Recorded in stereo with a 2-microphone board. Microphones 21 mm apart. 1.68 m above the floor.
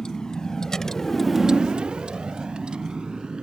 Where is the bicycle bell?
No bicycle bell in this recording.